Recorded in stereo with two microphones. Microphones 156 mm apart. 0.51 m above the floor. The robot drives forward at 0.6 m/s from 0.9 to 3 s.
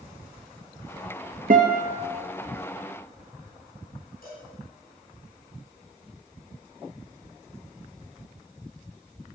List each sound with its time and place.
1.5 s a guitar: 65° right (ahead or behind), 2.5 m; by 2.0 s 70° right (ahead or behind), 2.5 m
4.2 s a cowbell: 65° left (ahead or behind), 7 m